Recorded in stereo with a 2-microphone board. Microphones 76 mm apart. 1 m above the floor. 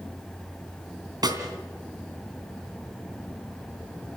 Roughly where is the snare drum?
Right.